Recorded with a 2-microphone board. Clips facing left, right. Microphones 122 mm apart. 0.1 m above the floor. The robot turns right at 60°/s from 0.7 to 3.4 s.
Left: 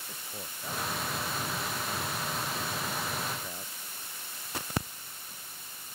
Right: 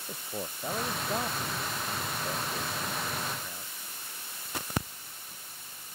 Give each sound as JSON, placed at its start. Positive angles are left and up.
{"t": 0.1, "sound": "a man speaking", "side_deg": -35}